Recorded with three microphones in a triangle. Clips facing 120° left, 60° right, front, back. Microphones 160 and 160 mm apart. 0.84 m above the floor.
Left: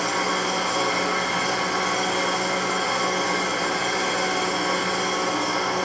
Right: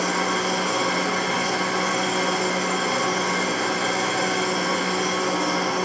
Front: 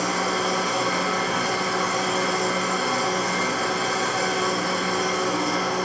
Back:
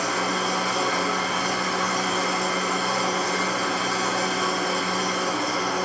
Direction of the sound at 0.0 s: 105° right.